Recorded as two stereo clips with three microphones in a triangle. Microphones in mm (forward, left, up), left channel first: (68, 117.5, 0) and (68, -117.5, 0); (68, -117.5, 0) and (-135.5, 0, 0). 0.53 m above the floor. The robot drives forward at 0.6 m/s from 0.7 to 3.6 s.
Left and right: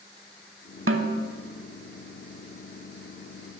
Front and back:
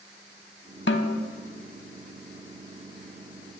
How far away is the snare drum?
About 0.6 m.